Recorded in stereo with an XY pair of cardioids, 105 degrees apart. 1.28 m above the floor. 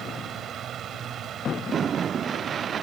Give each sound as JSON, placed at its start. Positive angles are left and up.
{"t": 0.0, "sound": "a fan", "azimuth_deg": -65}